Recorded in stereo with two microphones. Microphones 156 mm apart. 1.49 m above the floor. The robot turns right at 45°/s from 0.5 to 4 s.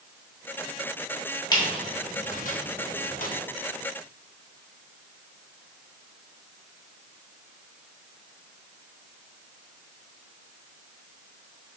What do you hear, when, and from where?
1.5 s a squeak: 25° left (ahead or behind), 1.0 m; by 3.3 s 55° left (ahead or behind), 1.0 m